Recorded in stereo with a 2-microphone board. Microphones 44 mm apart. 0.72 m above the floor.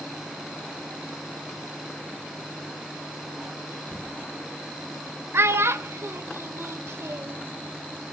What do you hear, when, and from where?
3.9 s knocking: 10° right (ahead or behind), 9 m
5.3 s a child speaking: 90° right, 1.4 m